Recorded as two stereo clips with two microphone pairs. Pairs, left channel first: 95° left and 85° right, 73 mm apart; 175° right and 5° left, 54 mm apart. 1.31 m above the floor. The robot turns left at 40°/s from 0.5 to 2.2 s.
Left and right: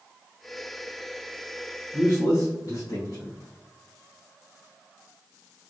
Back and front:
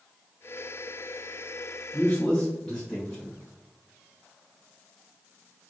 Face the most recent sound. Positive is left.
turn(degrees=110)